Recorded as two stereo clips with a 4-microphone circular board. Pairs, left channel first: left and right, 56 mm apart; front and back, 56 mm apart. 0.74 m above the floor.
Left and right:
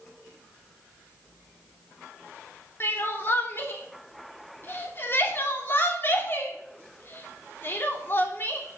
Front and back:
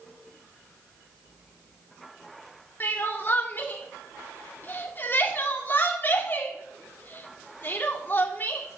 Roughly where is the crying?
Ahead left.